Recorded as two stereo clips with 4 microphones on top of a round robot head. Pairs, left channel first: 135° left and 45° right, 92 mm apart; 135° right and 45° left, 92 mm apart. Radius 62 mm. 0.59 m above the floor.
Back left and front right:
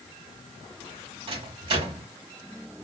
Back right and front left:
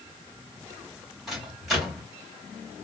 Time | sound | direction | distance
1.3 | a microwave | 45° right | 2.5 m